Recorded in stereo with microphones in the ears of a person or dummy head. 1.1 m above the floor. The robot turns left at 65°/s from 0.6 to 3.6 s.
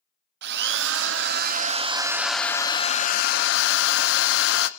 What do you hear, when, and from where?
0.4 s a drill: 70° right, 0.8 m; by 4.7 s 95° left, 0.8 m